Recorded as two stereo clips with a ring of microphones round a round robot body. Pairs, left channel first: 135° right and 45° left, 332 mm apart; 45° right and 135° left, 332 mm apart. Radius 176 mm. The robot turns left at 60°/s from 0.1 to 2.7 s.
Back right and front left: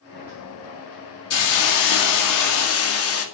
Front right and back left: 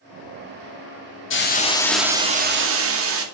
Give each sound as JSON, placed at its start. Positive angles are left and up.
{"t": 1.3, "sound": "a hiss", "azimuth_deg": -95, "distance_m": 2.0}